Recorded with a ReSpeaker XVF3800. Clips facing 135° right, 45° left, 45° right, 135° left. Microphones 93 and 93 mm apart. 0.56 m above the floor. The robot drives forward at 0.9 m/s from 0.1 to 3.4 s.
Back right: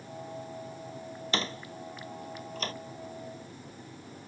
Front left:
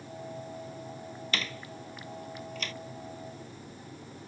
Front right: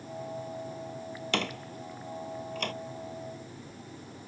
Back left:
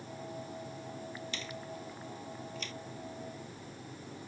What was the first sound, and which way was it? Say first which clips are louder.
A door slam: back right 4 dB, front right 8 dB; 75° right.